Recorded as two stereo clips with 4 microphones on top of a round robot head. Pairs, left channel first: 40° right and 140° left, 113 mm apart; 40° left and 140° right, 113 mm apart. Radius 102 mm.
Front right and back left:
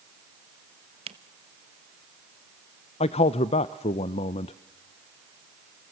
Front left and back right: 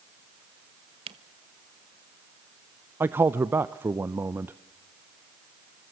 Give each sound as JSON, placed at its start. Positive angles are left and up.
{"t": 1.1, "sound": "a camera shutter", "azimuth_deg": 180, "distance_m": 0.9}
{"t": 3.0, "sound": "a man speaking", "azimuth_deg": -70, "distance_m": 0.6}